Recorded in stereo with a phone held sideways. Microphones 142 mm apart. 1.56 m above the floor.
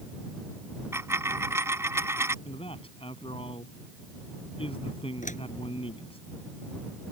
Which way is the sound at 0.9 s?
20° right (ahead or behind).